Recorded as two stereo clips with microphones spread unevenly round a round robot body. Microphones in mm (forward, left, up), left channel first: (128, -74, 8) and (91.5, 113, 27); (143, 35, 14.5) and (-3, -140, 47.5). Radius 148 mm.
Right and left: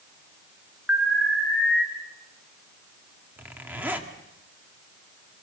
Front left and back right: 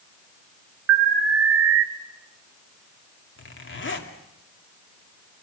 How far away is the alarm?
About 1.0 m.